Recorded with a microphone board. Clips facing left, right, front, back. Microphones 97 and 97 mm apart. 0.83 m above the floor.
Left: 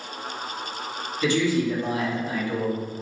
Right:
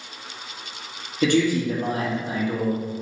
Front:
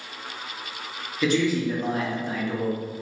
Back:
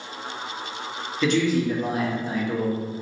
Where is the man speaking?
85° right, 1.0 m; by 2.8 s 175° right, 0.6 m.